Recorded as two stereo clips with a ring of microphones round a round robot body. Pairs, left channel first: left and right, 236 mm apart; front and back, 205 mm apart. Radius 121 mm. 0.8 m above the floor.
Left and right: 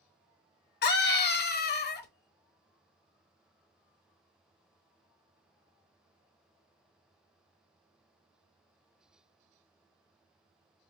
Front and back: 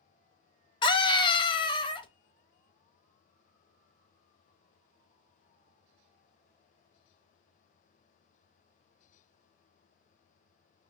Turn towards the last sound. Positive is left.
turn(degrees=60)